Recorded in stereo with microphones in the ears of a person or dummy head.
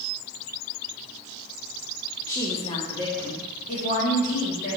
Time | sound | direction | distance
2.3 | a woman speaking | 15° left (ahead or behind) | 0.7 m